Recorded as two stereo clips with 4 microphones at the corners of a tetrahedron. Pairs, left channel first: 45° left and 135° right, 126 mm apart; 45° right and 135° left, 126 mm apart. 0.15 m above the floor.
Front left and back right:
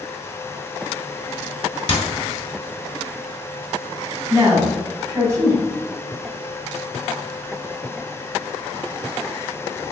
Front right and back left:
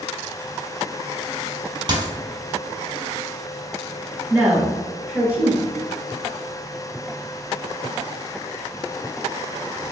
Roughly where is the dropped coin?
Left.